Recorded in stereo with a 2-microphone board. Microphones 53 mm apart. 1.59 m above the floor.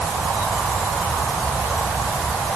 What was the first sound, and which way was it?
Only background noise.